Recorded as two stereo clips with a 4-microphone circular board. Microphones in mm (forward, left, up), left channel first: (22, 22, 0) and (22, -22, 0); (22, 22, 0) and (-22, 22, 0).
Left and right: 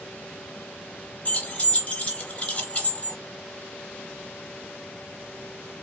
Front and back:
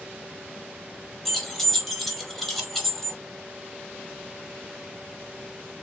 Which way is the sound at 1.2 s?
90° left.